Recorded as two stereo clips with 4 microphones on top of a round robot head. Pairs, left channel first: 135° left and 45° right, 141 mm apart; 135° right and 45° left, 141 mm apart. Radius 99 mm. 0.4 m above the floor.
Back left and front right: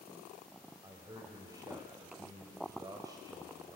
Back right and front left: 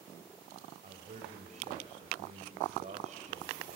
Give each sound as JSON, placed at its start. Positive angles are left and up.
{"t": 0.8, "sound": "a man speaking", "azimuth_deg": 15, "distance_m": 2.0}